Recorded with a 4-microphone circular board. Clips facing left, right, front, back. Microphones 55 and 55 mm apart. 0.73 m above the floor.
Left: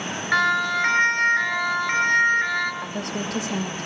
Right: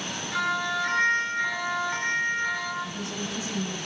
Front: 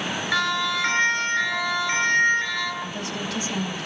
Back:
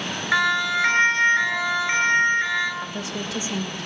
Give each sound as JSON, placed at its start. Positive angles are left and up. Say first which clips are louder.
{"t": 0.3, "sound": "a siren", "louder": "left 7 dB, back 4 dB", "azimuth_deg": 120, "distance_m": 8.5}
{"t": 2.8, "sound": "a woman speaking", "louder": "left 4 dB, even", "azimuth_deg": 110, "distance_m": 2.5}